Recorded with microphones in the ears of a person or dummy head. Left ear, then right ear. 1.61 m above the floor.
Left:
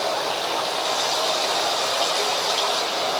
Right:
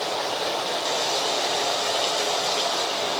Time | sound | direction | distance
0.0 | running water | 75° left (ahead or behind) | 6 m